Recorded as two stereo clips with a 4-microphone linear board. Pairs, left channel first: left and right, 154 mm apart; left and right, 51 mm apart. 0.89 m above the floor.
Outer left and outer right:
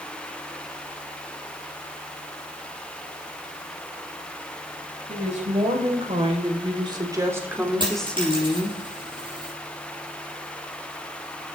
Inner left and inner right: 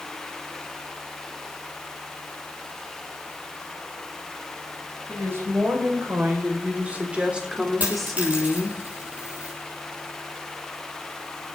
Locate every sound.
5.1 s a woman speaking: 50° right (ahead or behind), 5.5 m; by 8.8 s 30° left (ahead or behind), 2.5 m
7.8 s a dropped coin: 30° right (ahead or behind), 6.5 m